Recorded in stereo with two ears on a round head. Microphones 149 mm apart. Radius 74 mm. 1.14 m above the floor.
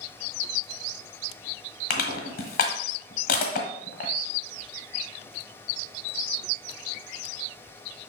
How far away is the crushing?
About 1.7 m.